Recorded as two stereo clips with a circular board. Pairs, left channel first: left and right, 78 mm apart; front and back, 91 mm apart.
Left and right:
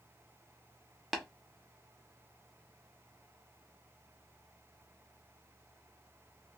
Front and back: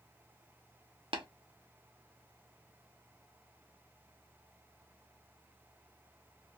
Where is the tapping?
Straight behind, 0.6 m.